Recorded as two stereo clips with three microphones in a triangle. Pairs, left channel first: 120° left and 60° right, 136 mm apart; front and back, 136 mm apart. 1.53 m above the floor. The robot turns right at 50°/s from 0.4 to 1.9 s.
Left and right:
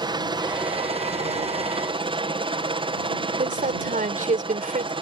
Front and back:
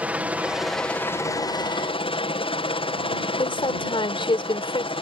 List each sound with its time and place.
0.0 s a helicopter: 105° right; by 5.0 s 30° right
3.4 s a woman speaking: 50° right